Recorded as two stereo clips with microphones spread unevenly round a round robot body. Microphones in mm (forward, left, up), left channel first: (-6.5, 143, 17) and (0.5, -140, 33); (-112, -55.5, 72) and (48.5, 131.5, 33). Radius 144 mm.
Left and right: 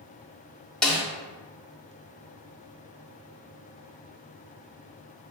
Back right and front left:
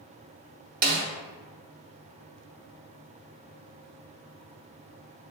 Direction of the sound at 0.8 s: 5° left.